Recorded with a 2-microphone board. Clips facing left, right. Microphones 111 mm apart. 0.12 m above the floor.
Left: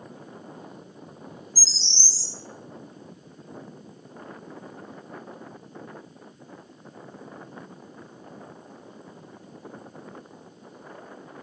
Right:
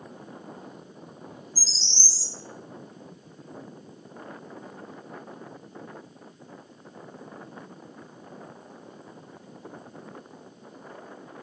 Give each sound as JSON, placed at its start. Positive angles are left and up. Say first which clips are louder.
{"t": 1.6, "sound": "a bird", "louder": "even", "side_deg": -20, "distance_m": 1.0}